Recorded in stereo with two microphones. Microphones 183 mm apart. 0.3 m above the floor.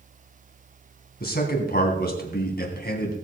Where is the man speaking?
55° left (ahead or behind), 2.5 m.